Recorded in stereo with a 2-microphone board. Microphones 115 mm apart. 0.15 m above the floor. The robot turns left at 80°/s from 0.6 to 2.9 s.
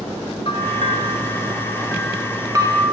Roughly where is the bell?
Behind left.